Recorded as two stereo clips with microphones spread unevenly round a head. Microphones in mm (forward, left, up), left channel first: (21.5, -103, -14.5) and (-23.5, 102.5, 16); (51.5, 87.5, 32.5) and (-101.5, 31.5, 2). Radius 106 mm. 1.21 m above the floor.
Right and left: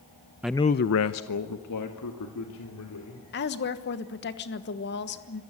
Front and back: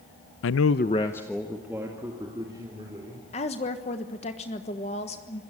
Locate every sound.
0.4 s a man speaking: 20° left, 0.5 m; by 3.2 s 85° right, 3.5 m
3.3 s a woman speaking: 45° right, 1.3 m